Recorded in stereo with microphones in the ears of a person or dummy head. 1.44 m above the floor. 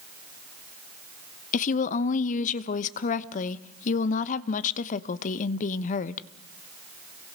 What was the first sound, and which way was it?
A woman speaking, 45° left (ahead or behind).